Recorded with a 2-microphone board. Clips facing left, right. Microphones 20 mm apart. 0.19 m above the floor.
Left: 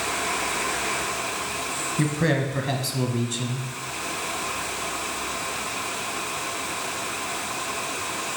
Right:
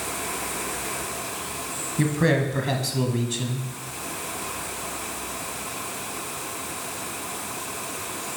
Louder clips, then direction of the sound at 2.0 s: Right 2 dB; 5° right (ahead or behind).